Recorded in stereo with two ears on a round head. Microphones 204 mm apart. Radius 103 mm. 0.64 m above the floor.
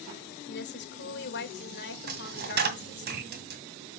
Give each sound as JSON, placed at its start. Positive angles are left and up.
{"t": 0.5, "sound": "a woman speaking", "side_deg": 50, "distance_m": 1.9}
{"t": 2.1, "sound": "a dropped coin", "side_deg": -50, "distance_m": 2.0}